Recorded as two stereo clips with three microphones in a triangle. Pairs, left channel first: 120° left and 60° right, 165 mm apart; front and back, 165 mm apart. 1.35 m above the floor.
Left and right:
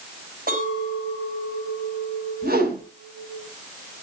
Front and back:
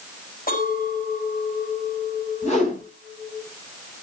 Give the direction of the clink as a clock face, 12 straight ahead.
1 o'clock.